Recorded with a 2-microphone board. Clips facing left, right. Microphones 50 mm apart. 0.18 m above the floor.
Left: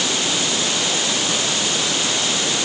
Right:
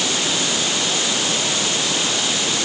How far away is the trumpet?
I don't hear a trumpet.